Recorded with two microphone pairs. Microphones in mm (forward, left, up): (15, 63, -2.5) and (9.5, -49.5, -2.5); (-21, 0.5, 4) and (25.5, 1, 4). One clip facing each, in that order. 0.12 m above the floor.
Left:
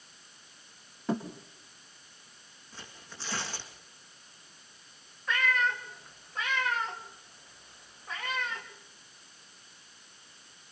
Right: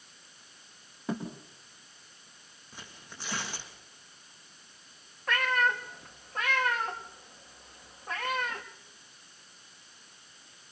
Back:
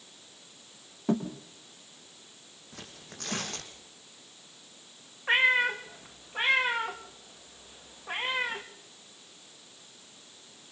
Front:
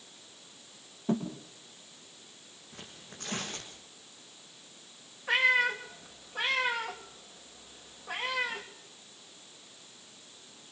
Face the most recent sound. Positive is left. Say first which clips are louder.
# right 2 dB, back 2 dB
turn(degrees=-125)